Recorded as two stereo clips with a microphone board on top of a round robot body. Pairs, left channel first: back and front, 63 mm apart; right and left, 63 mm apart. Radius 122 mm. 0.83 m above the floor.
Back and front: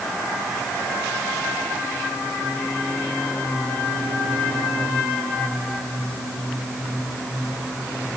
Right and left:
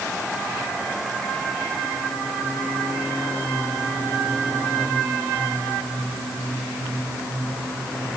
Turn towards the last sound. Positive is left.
No sound to turn to.